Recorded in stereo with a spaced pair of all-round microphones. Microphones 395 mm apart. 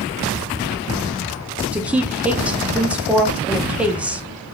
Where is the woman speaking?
5° right (ahead or behind), 0.6 m.